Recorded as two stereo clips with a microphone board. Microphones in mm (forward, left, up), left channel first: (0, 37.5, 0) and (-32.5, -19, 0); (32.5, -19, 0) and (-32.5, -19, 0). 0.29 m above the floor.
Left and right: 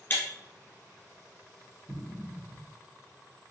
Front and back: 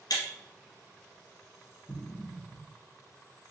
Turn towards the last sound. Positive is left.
turn(degrees=-45)